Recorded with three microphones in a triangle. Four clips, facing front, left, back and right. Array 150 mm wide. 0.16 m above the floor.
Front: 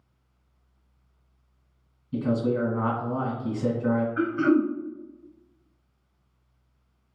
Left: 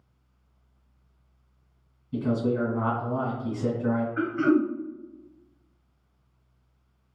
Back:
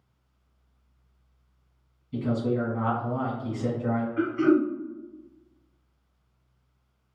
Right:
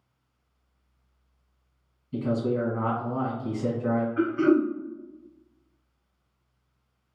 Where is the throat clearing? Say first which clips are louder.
Right 2 dB, back 2 dB; 5° left, 1.5 m.